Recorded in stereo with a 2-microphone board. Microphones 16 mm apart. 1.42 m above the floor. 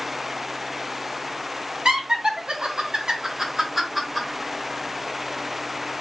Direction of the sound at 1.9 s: 75° right (ahead or behind).